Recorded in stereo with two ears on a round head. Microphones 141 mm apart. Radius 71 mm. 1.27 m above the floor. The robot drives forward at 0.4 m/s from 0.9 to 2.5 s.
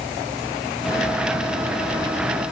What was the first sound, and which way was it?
Only background noise.